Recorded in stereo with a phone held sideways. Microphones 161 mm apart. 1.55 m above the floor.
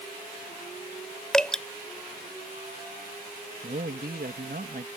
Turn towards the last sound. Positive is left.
turn(degrees=-70)  # may be behind; listen again after turning